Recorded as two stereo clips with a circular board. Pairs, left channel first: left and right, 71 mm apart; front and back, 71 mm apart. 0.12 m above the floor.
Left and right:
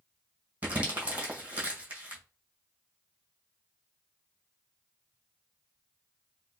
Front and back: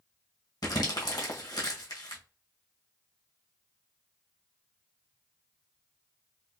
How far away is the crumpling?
About 1.8 m.